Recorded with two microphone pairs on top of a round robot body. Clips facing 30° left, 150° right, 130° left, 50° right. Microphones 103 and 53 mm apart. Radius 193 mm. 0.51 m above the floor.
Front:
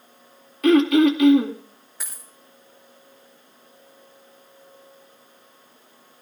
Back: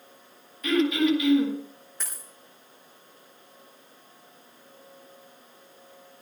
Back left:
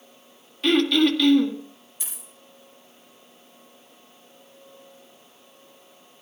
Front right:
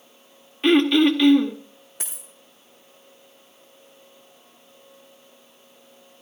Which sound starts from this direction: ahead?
Throat clearing, at 0.6 s.